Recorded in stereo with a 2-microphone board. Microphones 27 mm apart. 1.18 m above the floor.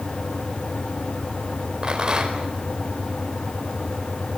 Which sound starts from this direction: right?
A rattle, at 1.8 s.